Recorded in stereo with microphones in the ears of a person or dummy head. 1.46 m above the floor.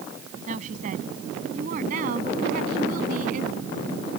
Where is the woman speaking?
50° right (ahead or behind); by 4.2 s 55° right (ahead or behind).